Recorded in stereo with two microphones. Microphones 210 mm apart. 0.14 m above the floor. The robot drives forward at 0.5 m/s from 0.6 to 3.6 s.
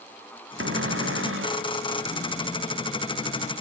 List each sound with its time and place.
0.6 s a cupboard door: 80° right; by 1.7 s 85° right